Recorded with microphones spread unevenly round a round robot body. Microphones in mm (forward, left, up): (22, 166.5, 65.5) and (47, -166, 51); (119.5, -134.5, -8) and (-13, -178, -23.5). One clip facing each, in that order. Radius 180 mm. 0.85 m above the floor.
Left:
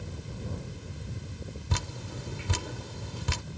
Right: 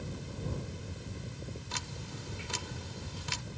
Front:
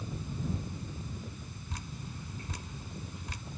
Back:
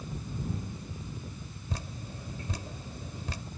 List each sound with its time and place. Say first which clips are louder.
1.7 s dripping: left 6 dB, back 4 dB; 135° left